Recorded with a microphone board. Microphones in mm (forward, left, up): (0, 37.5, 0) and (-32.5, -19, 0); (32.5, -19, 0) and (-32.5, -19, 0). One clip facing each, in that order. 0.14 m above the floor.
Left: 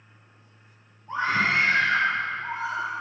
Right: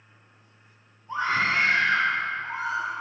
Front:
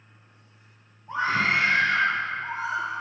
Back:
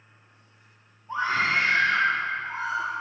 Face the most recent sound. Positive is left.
turn(degrees=30)